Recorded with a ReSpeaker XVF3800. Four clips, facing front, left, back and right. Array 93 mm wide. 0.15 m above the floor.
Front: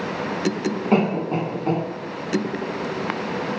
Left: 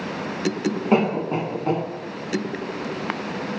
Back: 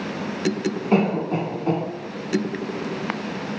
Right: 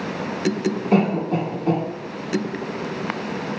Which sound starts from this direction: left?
A cough, at 0.9 s.